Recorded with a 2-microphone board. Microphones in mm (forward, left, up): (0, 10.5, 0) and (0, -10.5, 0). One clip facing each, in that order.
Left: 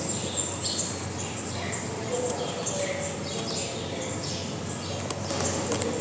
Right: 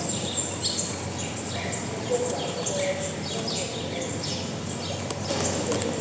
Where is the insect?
20° right (ahead or behind), 3 m.